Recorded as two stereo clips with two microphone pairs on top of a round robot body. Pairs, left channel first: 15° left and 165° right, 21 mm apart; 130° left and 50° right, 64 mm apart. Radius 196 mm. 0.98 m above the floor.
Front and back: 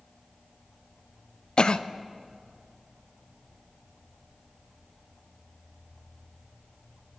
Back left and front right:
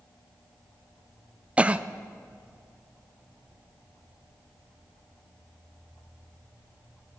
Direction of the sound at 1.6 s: 10° left.